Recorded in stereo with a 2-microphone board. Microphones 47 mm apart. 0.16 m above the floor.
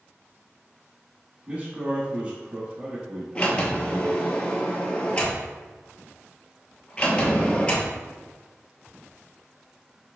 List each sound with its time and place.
1.5 s a man speaking: 20° right (ahead or behind), 1.1 m
3.4 s a sliding door: 25° left (ahead or behind), 0.9 m